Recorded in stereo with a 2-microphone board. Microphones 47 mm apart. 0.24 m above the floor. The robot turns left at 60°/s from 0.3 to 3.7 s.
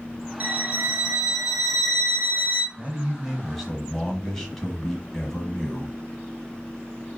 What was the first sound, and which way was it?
A violin, 105° right.